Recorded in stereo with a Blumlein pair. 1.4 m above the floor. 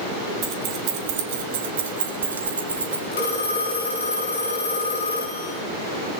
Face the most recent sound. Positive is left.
turn(degrees=70)